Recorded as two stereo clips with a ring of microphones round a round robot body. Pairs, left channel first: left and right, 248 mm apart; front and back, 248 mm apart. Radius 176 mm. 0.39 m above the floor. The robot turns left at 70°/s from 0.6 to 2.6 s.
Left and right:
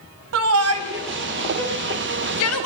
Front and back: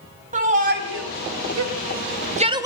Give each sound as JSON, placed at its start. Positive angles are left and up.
{"t": 0.3, "sound": "a shout", "azimuth_deg": -115, "distance_m": 2.0}